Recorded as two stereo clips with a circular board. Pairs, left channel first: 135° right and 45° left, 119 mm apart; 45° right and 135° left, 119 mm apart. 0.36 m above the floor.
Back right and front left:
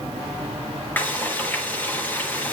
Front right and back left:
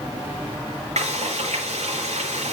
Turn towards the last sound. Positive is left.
turn(degrees=150)